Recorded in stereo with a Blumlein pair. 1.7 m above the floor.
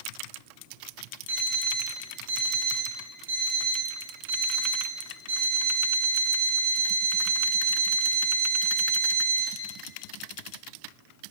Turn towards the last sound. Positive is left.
turn(degrees=-70)